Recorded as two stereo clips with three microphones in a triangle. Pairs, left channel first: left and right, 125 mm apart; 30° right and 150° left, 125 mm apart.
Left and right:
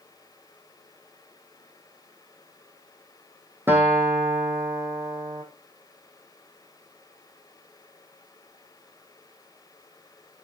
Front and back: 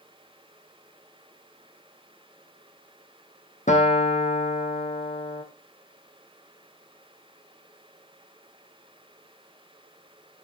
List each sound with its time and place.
3.7 s a guitar: 15° right, 3 m